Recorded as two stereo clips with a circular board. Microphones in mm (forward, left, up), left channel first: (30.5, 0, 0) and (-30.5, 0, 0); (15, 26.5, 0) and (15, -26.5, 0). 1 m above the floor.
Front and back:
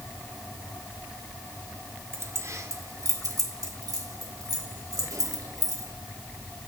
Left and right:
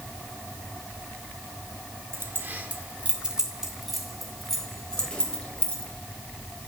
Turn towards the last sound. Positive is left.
turn(degrees=160)